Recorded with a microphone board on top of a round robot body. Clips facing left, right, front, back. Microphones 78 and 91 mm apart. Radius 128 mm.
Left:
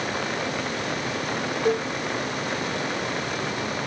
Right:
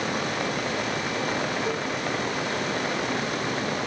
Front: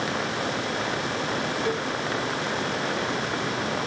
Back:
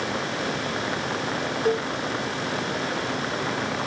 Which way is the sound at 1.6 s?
130° left.